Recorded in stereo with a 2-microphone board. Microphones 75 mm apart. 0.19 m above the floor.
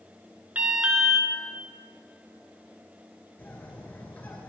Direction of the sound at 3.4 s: 25° left (ahead or behind).